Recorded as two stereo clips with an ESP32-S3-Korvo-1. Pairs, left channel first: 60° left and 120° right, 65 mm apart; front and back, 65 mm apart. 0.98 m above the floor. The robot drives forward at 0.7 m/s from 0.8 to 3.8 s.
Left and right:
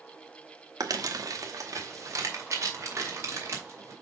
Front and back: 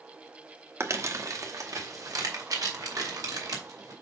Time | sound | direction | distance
0.8 | crumpling | 135° right | 1.1 m